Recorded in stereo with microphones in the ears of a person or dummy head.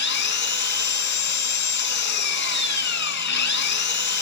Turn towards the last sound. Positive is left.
turn(degrees=60)  # may be behind; listen again after turning